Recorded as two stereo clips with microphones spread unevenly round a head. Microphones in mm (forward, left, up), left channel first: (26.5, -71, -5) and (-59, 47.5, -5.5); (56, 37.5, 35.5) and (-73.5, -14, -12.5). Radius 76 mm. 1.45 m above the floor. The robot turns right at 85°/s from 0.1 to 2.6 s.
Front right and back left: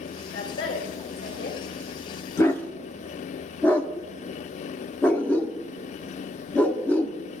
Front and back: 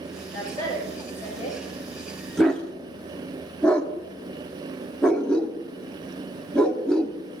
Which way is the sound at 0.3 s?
130° right.